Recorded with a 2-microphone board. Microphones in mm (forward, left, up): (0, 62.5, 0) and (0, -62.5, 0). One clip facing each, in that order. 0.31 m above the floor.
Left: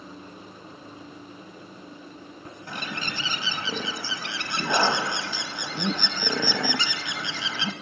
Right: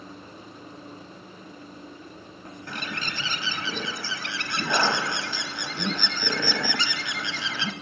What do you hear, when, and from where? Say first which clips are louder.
2.7 s a bird: left 1 dB; 20° left (ahead or behind), 0.7 m